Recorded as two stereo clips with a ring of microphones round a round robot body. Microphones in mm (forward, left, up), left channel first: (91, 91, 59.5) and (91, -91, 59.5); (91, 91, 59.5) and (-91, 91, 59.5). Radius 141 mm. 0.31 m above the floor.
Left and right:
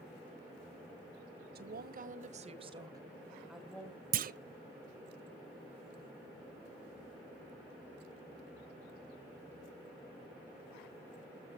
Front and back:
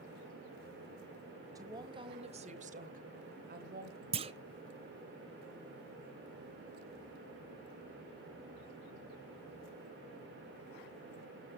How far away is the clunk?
About 0.6 m.